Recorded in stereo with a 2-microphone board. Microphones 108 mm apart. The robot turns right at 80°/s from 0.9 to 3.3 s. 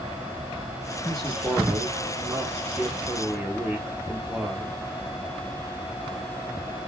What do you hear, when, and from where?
1.0 s a man speaking: 10° left (ahead or behind), 0.8 m; by 4.8 s 10° right (ahead or behind), 0.8 m